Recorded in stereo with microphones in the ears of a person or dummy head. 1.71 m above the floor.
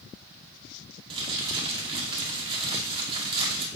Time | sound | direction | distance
1.1 | crumpling | 30° right (ahead or behind) | 2.0 m